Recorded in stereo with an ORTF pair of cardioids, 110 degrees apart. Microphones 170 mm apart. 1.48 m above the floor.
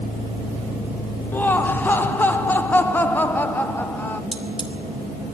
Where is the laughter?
10° left, 1.3 m.